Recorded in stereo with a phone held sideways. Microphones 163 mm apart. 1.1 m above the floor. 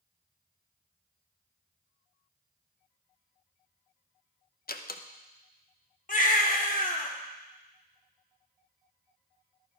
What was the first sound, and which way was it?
A door slam, 65° left (ahead or behind).